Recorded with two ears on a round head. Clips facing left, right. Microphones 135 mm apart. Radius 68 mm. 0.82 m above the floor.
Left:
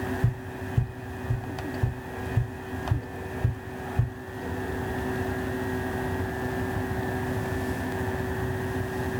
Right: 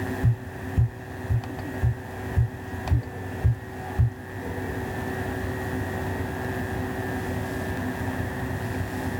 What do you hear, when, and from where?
0.2 s tapping: 5° right (ahead or behind), 1.5 m